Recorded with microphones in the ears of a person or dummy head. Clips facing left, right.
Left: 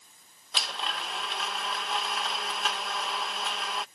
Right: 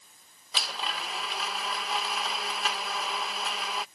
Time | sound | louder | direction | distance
0.5 | a blender | even | 5° left (ahead or behind) | ?